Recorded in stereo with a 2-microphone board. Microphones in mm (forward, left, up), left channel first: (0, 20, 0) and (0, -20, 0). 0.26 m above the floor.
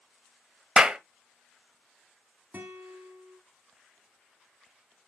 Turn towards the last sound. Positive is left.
turn(degrees=-55)  # may be behind; listen again after turning